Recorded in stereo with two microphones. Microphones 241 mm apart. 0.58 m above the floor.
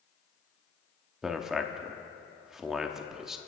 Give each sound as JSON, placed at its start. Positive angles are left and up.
{"t": 1.2, "sound": "a man speaking", "side_deg": 0, "distance_m": 0.9}